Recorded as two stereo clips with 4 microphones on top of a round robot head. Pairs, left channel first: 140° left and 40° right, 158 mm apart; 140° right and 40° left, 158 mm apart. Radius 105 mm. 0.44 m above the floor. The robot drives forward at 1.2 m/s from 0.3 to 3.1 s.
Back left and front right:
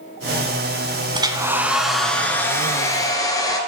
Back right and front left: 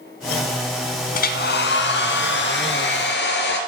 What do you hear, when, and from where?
1.1 s a hair dryer: 105° right, 1.5 m; by 3.6 s 150° right, 3 m